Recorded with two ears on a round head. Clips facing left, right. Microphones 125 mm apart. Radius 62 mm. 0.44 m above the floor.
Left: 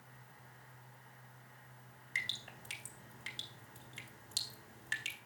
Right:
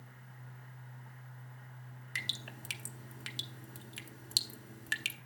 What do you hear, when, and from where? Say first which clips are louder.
2.1 s dripping: right 1 dB; 65° right (ahead or behind), 0.9 m